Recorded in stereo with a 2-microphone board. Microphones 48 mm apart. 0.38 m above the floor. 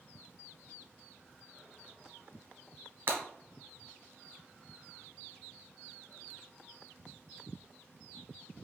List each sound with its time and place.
3.1 s breaking glass: 50° right (ahead or behind), 0.9 m